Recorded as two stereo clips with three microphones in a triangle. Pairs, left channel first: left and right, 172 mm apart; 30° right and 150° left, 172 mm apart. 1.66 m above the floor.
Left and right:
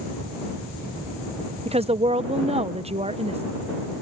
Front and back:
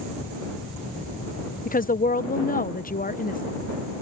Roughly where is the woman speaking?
Ahead right.